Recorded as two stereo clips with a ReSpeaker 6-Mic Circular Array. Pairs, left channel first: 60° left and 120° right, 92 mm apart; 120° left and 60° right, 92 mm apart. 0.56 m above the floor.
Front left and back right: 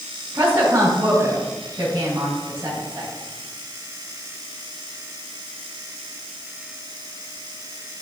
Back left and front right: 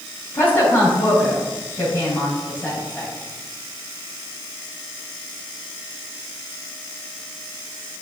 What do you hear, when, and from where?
0.3 s a woman speaking: 175° right, 4 m